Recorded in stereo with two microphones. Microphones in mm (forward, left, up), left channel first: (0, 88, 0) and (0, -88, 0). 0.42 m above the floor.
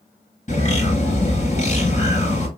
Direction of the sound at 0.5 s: 45° left (ahead or behind).